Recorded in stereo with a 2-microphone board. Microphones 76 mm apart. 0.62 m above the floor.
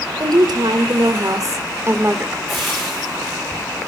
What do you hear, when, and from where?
0.2 s a woman speaking: 70° right (ahead or behind), 2.5 m; by 2.4 s 20° right (ahead or behind), 2 m
2.5 s frying: centre (ahead or behind), 10 m